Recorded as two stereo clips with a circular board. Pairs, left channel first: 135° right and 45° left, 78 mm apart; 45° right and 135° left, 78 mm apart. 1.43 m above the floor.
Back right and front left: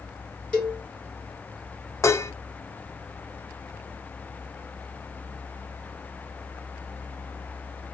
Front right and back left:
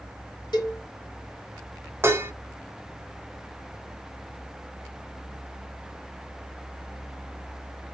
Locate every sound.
0.5 s a cowbell: 55° right, 1.4 m
2.0 s dishes clattering: 175° right, 0.6 m